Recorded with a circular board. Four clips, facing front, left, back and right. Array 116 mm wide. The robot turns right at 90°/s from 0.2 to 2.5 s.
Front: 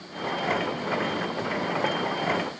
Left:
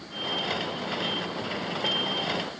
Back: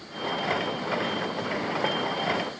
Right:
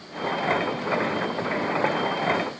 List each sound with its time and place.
Only background noise.